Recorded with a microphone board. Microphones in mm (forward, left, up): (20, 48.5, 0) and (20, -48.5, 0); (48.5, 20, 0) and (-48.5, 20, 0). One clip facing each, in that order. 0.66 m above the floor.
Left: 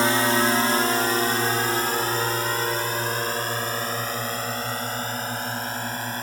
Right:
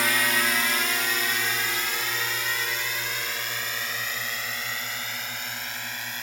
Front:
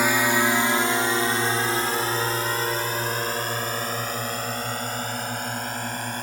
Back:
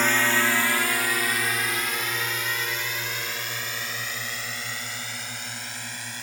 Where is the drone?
70° left; by 6.2 s 40° left.